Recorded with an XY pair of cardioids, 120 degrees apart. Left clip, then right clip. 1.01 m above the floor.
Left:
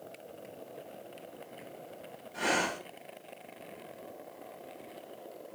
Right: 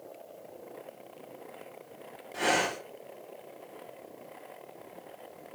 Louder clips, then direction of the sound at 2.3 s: Right 3 dB; 45° right.